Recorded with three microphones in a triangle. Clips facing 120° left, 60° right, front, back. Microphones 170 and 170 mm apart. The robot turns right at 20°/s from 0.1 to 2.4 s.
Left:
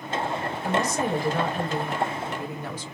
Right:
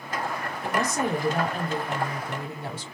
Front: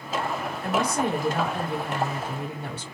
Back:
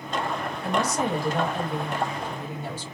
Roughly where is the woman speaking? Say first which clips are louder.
Even, front 1 dB; ahead right.